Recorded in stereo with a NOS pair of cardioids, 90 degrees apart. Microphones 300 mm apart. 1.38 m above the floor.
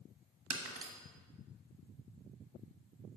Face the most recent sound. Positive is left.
turn(degrees=-50)